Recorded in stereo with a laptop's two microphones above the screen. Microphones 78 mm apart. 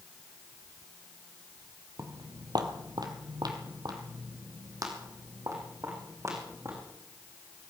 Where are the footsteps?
45° right (ahead or behind), 1.5 m; by 6.8 s 40° right (ahead or behind), 4 m.